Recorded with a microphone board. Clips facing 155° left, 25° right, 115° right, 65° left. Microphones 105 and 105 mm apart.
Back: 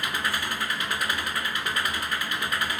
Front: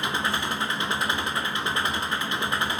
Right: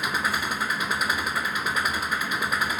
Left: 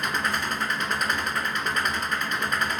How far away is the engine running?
About 1.0 m.